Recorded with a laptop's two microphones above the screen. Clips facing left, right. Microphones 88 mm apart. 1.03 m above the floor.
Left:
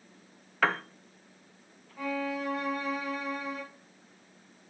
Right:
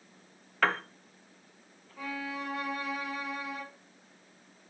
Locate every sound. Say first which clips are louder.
0.6 s a piano: left 1 dB; 5° left (ahead or behind), 0.6 m
2.0 s a violin: left 5 dB; centre (ahead or behind), 2.0 m